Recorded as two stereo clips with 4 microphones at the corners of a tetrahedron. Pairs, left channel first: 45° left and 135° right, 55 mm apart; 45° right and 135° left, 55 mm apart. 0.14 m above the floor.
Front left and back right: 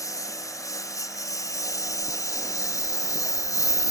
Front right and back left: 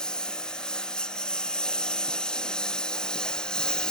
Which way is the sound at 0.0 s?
30° left.